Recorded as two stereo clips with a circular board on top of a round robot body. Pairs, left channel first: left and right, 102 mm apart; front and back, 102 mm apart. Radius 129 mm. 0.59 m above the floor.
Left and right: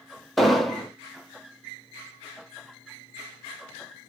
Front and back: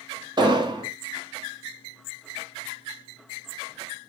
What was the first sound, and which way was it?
An explosion, straight behind.